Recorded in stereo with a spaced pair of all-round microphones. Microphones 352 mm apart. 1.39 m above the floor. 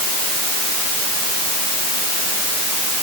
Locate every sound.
Only background noise.